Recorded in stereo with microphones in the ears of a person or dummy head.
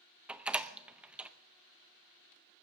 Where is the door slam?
5° right (ahead or behind), 0.6 m.